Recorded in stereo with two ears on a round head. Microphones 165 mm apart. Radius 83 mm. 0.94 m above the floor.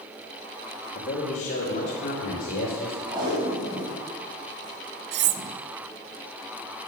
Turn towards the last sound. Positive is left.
turn(degrees=-65)  # may be behind; listen again after turning